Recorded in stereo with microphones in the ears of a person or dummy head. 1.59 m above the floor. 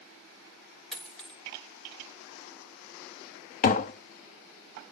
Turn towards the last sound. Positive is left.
turn(degrees=40)  # may be behind; listen again after turning